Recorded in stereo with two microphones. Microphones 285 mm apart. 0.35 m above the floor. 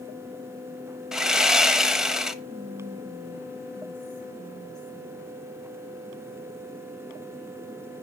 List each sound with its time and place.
1.1 s sawing: centre (ahead or behind), 0.9 m
2.4 s whispering: 75° right (ahead or behind), 7.5 m